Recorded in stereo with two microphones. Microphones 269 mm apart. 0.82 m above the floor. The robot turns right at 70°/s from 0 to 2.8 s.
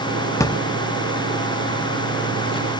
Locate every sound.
0.4 s a drawer: 10° left (ahead or behind), 0.6 m; by 2.8 s centre (ahead or behind), 0.6 m